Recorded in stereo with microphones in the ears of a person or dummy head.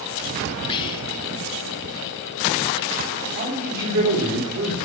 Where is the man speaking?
60° right (ahead or behind), 4 m.